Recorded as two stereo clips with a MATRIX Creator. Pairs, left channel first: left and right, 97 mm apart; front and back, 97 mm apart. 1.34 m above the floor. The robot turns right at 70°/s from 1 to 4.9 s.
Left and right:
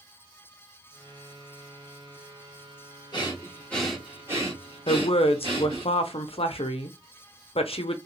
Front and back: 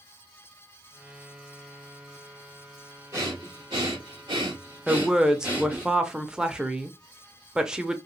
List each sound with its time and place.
3.1 s breathing: 125° left, 1.9 m; by 5.9 s 110° right, 1.9 m
4.9 s a woman speaking: 95° left, 0.7 m; by 8.0 s 100° left, 0.7 m